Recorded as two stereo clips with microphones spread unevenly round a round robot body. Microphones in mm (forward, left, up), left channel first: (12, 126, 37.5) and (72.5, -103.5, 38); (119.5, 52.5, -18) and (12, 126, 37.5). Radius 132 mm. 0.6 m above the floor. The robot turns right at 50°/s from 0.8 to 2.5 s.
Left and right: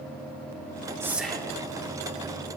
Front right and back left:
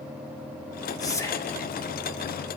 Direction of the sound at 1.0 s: Straight ahead.